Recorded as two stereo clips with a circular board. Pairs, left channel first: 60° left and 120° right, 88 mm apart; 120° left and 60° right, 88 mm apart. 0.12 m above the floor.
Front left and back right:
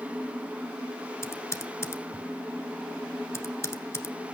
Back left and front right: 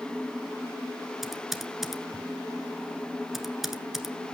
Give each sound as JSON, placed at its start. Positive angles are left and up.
{"t": 1.2, "sound": "typing on a keyboard", "azimuth_deg": 25, "distance_m": 1.4}